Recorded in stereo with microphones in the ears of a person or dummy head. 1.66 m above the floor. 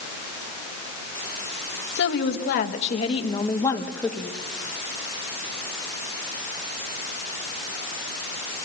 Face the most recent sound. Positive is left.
turn(degrees=-10)  # may be behind; listen again after turning